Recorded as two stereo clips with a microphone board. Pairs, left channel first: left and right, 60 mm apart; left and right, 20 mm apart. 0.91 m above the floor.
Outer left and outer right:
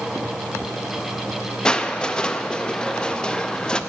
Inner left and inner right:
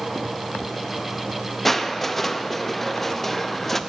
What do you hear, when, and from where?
1.6 s crushing: 15° left (ahead or behind), 0.6 m